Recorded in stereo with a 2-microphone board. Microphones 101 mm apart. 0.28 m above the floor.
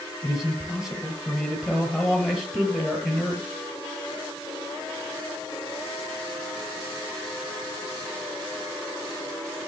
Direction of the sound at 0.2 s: 5° right (ahead or behind).